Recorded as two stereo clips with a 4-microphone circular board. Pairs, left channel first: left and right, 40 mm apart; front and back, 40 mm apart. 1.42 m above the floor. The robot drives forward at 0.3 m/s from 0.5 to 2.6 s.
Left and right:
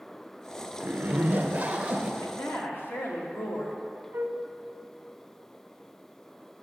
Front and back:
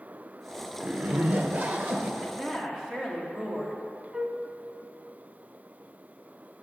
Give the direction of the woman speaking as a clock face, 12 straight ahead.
9 o'clock.